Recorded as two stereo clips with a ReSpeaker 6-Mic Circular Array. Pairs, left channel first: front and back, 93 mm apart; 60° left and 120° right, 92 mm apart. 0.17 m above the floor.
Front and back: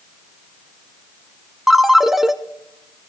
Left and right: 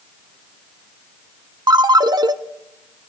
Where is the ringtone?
95° right, 0.6 m.